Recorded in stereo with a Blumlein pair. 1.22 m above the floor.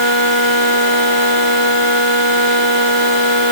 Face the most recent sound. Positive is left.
No sound to turn to.